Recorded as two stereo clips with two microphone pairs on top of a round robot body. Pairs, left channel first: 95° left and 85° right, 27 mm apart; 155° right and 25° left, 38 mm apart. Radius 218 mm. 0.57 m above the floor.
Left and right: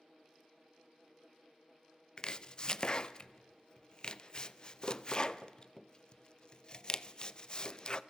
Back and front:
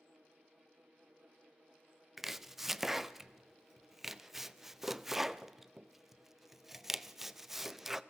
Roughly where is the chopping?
Left.